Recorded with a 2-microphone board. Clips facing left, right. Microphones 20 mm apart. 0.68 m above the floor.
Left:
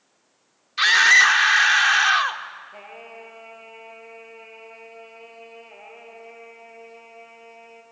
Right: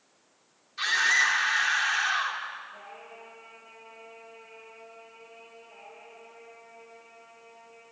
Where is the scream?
50° left (ahead or behind), 1.5 m.